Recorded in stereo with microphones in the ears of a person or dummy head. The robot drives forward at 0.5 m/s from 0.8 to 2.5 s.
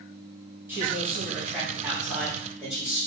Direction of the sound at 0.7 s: 15° right (ahead or behind).